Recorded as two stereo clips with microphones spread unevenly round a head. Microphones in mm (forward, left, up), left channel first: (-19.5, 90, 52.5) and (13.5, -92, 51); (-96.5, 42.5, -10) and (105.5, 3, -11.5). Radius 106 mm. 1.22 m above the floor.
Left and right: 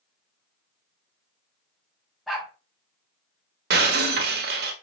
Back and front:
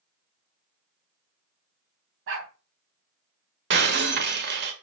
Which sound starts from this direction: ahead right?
Breaking glass, at 3.7 s.